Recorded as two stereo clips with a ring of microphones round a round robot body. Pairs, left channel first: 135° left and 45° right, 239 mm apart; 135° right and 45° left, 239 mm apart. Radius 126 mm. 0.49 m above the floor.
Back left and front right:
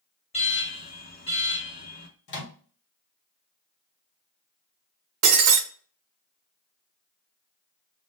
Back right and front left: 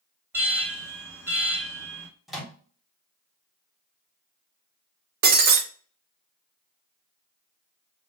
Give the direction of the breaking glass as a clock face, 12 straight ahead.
12 o'clock.